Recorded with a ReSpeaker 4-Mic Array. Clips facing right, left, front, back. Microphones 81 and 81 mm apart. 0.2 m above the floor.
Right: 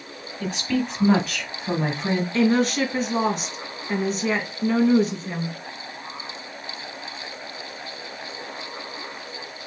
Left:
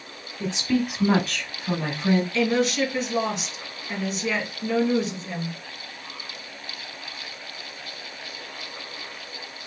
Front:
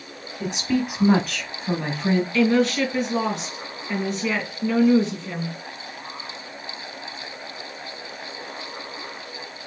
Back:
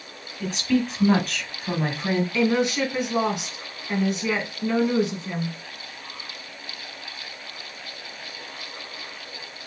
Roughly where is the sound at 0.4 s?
Ahead left.